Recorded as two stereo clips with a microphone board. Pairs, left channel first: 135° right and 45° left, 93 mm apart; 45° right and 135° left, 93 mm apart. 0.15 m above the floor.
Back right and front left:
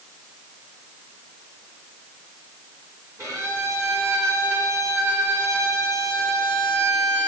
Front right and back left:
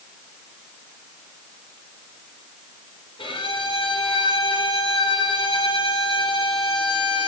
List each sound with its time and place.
3.2 s a violin: 10° right, 8 m